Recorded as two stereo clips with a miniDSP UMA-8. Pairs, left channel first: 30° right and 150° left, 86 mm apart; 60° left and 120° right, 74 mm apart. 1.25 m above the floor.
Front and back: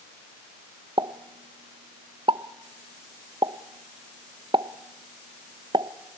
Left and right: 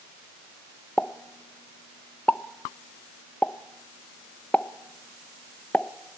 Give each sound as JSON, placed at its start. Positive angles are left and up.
{"t": 1.0, "sound": "a pop", "azimuth_deg": 135, "distance_m": 0.6}